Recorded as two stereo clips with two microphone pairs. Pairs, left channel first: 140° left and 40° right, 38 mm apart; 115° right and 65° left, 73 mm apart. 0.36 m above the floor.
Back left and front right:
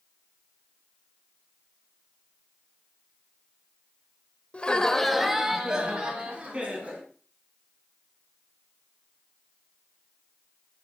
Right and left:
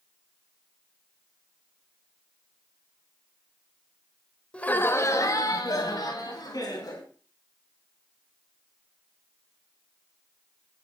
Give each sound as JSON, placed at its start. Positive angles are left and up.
{"t": 4.5, "sound": "laughter", "azimuth_deg": 175, "distance_m": 1.3}